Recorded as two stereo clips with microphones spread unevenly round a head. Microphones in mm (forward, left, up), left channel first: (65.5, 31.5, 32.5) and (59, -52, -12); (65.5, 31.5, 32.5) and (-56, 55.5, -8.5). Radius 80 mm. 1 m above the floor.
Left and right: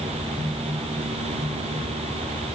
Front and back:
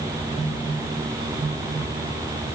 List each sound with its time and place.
Only background noise.